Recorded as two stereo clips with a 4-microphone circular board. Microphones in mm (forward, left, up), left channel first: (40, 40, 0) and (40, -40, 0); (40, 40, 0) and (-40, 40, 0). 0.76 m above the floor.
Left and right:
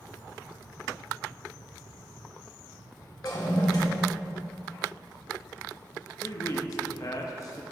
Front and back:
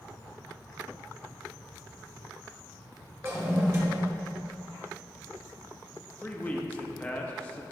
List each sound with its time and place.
3.2 s a toilet flushing: 125° left, 1.4 m
6.2 s a man speaking: 65° left, 0.7 m